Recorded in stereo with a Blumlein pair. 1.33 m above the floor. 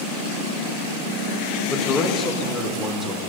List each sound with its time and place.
1.7 s a man speaking: 25° left, 2 m; by 3.2 s 20° left, 4 m